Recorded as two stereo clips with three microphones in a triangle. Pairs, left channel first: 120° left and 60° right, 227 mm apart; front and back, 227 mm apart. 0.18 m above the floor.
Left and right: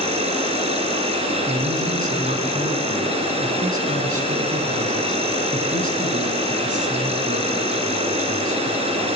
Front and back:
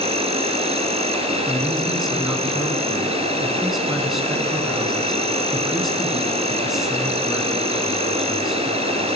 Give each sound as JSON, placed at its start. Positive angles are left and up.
{"t": 0.0, "sound": "an insect", "azimuth_deg": -120, "distance_m": 1.3}
{"t": 1.5, "sound": "a man speaking", "azimuth_deg": -90, "distance_m": 2.0}